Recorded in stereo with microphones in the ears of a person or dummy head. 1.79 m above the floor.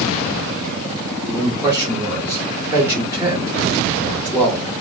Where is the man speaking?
10° right (ahead or behind), 1.1 m.